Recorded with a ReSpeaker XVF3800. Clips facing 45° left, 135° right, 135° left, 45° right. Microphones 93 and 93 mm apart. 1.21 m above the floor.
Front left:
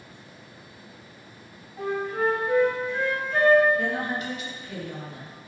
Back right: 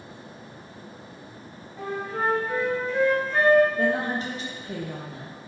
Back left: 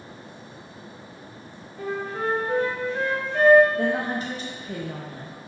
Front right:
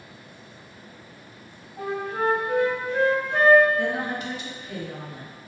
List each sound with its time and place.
1.8 s a flute: 40° right, 1.7 m
3.8 s a woman speaking: straight behind, 0.7 m